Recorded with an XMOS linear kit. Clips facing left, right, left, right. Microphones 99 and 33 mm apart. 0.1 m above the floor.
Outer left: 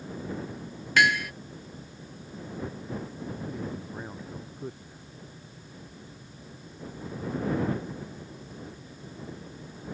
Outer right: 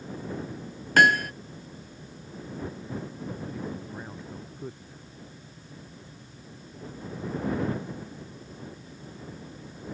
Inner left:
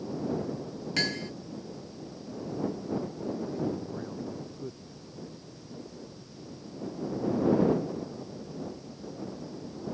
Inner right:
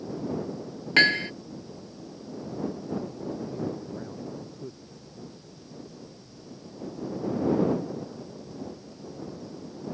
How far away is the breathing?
No breathing in this recording.